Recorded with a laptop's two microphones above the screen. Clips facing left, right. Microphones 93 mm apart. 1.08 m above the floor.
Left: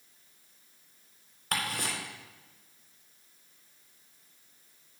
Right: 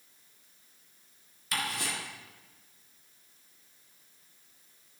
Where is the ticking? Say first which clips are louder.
Left 1 dB; 55° left (ahead or behind), 4 m.